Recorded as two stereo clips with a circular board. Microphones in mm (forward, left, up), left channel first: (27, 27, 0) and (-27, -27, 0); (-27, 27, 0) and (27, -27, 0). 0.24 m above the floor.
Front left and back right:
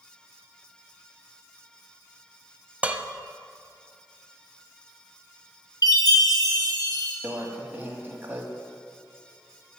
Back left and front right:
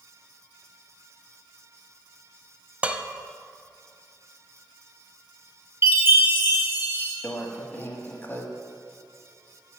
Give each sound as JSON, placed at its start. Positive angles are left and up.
{"t": 2.8, "sound": "dishes clattering", "azimuth_deg": -95, "distance_m": 0.6}
{"t": 5.8, "sound": "a chime", "azimuth_deg": 15, "distance_m": 4.0}
{"t": 7.2, "sound": "a microwave", "azimuth_deg": 175, "distance_m": 1.5}